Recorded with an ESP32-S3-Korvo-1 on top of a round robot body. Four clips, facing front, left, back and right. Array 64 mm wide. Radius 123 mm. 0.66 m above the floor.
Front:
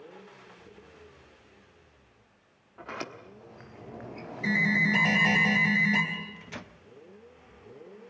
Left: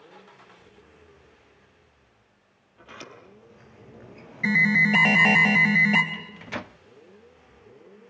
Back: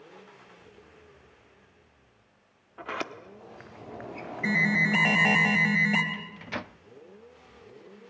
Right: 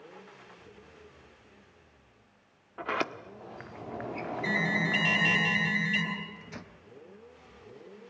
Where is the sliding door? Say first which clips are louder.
Right 12 dB, back 4 dB; 110° right, 1.2 m.